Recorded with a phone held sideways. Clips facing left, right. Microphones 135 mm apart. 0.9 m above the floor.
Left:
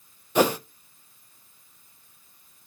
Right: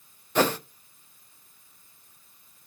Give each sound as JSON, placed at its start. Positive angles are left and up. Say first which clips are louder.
{"t": 0.3, "sound": "a whoosh", "louder": "left 3 dB", "side_deg": 10, "distance_m": 0.6}